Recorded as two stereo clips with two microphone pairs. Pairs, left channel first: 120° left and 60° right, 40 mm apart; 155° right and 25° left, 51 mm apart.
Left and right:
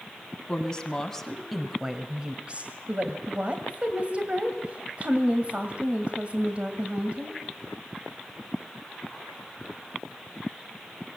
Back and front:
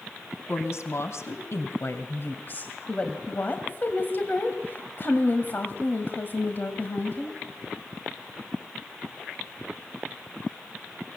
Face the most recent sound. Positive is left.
turn(degrees=-115)